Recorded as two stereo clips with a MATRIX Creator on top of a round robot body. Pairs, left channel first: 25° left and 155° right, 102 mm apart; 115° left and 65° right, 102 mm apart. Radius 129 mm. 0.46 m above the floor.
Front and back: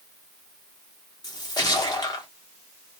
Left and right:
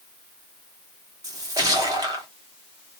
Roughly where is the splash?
Ahead.